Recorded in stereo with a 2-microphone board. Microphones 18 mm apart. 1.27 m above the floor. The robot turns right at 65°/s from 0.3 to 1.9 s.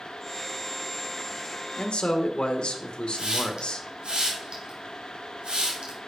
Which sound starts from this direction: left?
A man speaking, at 1.8 s.